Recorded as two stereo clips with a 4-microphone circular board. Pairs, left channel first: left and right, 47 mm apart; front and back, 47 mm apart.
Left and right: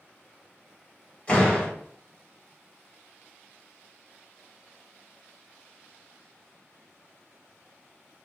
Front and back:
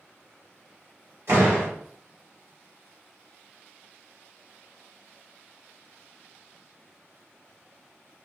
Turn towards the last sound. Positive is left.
turn(degrees=155)